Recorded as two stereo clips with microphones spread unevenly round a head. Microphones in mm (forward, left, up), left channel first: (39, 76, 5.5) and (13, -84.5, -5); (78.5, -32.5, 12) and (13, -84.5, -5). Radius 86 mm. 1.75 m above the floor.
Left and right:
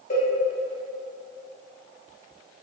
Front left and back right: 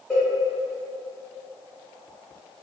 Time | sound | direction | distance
0.1 | a cowbell | 110° left | 1.2 m